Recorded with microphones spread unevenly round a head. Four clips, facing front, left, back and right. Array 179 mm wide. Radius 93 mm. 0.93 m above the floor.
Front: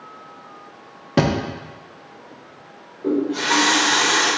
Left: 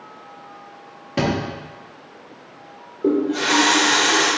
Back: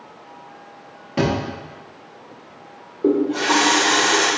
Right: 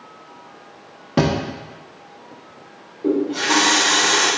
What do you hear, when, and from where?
1.2 s a thud: 35° right, 0.5 m
3.0 s a running tap: 165° left, 1.5 m